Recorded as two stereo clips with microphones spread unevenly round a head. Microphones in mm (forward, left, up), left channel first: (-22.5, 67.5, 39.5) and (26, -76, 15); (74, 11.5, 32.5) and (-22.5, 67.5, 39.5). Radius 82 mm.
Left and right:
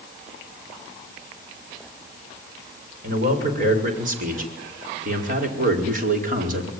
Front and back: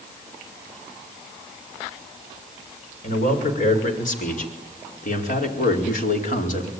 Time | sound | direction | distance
3.0 | a man speaking | 30° right | 6.5 m